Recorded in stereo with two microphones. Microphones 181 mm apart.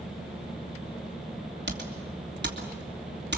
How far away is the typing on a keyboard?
About 3 m.